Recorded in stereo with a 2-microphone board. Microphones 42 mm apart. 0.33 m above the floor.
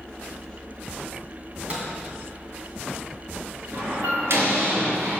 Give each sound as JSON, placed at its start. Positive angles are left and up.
{"t": 1.7, "sound": "a microwave", "side_deg": -35, "distance_m": 2.0}
{"t": 3.7, "sound": "a door slam", "side_deg": -65, "distance_m": 4.0}